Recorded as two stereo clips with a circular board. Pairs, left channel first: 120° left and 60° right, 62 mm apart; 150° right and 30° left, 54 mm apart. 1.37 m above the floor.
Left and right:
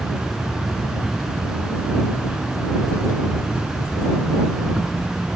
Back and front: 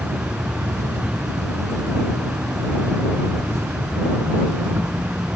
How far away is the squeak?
No squeak in this recording.